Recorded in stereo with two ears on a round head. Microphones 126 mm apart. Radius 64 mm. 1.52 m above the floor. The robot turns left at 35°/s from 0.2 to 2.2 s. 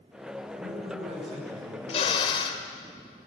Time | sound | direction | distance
0.5 | a man speaking | 115° right | 9.5 m
1.9 | a drill | 45° left (ahead or behind) | 2.5 m